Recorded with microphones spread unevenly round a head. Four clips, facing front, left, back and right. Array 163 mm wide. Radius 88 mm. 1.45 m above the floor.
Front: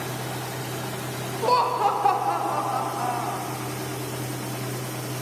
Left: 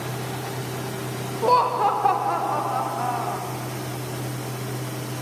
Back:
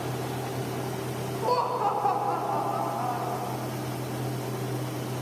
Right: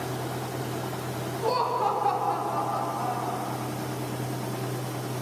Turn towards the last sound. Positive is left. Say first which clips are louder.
# left 7 dB, front 5 dB
turn(degrees=45)